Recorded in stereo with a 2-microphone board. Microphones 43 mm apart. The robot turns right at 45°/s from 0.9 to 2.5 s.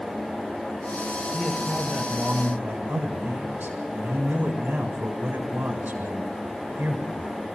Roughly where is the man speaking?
Behind.